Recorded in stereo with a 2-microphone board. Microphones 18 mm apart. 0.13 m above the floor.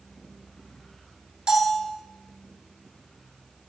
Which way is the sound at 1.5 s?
55° right (ahead or behind).